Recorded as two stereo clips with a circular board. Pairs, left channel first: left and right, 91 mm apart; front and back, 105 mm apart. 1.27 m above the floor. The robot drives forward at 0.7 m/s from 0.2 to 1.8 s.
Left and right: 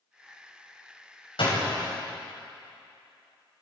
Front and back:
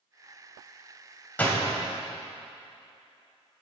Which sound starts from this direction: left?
A door slam, at 1.4 s.